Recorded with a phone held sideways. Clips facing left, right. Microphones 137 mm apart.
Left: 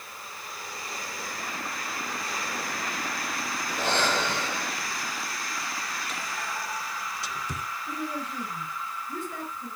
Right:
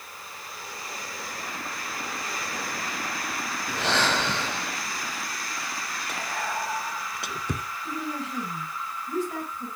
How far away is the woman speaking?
About 6.5 m.